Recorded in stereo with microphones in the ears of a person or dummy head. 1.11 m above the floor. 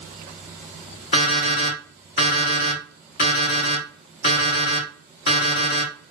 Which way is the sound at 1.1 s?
30° left (ahead or behind).